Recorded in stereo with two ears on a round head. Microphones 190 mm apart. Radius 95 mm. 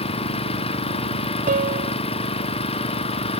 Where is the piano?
40° right (ahead or behind).